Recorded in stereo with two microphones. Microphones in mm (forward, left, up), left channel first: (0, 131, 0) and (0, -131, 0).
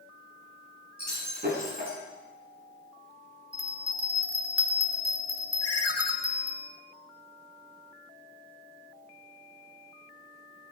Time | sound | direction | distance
1.0 | breaking glass | 40° right (ahead or behind) | 8 m
3.5 | a bell | 60° right (ahead or behind) | 2.5 m
5.6 | a ringtone | 70° left (ahead or behind) | 1.9 m